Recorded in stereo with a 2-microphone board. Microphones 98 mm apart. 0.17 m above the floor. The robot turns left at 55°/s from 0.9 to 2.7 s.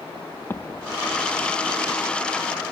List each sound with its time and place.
0.5 s an explosion: 25° left (ahead or behind); by 1.6 s 60° left (ahead or behind)